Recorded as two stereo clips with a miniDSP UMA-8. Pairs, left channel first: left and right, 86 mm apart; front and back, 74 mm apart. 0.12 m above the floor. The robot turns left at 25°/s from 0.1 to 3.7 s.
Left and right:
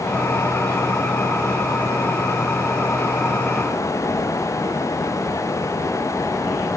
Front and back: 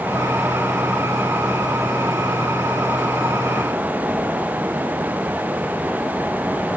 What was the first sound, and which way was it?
Only background noise.